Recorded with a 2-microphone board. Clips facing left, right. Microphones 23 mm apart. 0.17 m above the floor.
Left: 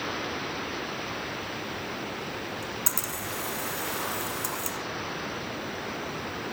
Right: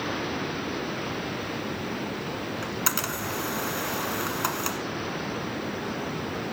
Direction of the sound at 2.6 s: 40° right (ahead or behind).